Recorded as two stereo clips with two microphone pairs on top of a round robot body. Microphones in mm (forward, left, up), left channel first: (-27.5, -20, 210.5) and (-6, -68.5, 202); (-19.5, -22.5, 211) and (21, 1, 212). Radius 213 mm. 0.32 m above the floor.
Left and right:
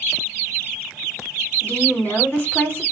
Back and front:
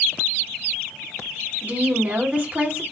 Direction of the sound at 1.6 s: 60° left.